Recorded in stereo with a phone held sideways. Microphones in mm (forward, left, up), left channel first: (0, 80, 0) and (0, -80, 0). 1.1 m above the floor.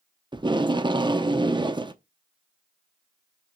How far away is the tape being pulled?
About 0.6 m.